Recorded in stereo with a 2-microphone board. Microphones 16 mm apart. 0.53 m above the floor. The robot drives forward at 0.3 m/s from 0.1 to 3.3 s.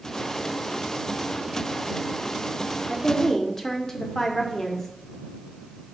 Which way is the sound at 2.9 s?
15° left (ahead or behind).